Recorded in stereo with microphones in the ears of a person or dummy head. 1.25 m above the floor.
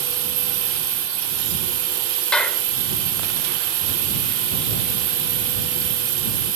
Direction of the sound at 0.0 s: 75° right (ahead or behind).